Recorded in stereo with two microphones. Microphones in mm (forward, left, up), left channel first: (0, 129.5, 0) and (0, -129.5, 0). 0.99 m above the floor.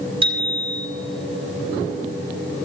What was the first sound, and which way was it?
A bicycle bell, 20° right (ahead or behind).